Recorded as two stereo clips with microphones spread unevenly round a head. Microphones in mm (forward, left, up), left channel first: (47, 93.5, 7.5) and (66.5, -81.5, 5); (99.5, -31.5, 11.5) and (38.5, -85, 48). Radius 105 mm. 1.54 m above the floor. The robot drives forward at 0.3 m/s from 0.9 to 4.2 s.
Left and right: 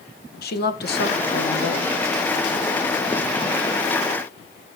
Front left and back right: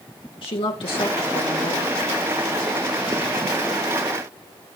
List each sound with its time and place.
0.4 s a woman speaking: 65° left, 1.7 m; by 1.9 s 75° left, 1.6 m